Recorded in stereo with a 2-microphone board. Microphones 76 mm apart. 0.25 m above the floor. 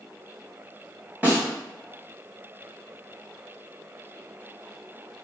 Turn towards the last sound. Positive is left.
turn(degrees=-25)  # may be behind; listen again after turning